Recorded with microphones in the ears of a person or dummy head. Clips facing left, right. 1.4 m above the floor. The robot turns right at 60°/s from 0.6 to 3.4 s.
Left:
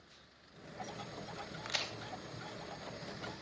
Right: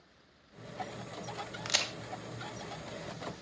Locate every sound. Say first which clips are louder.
1.6 s a crack: right 5 dB; 45° right (ahead or behind), 0.6 m; by 1.9 s 60° right (ahead or behind), 0.6 m